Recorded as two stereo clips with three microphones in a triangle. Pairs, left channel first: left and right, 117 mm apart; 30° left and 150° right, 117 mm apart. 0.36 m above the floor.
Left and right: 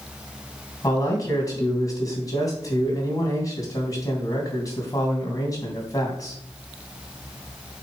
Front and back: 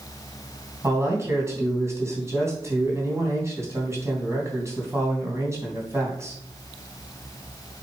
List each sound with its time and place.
0.8 s a man speaking: 145° left, 3 m